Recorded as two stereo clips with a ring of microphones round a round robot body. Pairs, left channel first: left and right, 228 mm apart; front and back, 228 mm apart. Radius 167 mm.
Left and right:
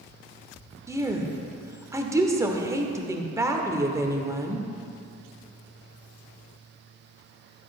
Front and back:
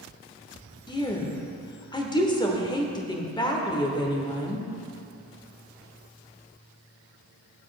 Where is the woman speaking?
35° right, 1.1 m.